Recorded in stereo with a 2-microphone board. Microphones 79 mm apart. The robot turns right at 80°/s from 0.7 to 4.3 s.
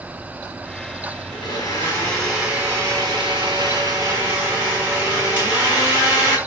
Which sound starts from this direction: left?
A blender, at 1.3 s.